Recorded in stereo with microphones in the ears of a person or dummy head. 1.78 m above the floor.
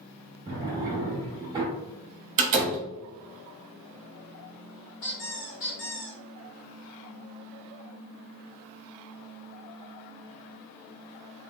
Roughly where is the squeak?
Left.